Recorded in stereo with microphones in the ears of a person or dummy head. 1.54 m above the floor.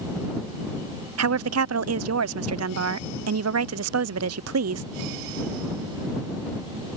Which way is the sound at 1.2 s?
85° right.